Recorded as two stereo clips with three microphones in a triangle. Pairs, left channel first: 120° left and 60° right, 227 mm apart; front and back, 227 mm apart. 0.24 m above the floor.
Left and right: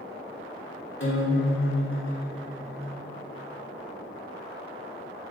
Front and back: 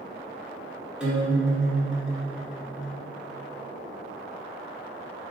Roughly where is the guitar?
Left.